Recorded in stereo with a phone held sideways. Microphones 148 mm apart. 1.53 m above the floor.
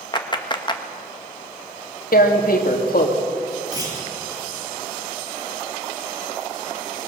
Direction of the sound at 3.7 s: 25° right (ahead or behind).